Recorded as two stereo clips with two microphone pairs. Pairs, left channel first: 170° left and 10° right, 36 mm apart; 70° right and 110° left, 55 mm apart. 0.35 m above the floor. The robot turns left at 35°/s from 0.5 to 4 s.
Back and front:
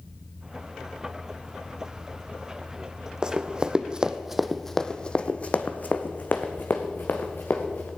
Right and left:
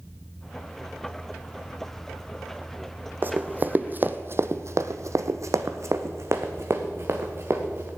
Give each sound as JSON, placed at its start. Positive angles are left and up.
{"t": 3.2, "sound": "running footsteps", "azimuth_deg": 60, "distance_m": 0.9}